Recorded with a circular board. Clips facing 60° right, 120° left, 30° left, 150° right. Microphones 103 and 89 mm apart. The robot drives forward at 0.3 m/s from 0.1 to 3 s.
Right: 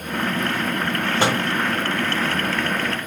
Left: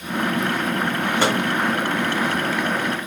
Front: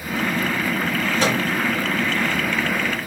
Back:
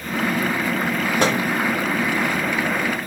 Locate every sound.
1.2 s a microwave: 130° right, 1.1 m